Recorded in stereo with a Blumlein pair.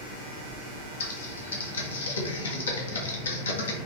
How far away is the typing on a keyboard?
About 0.7 m.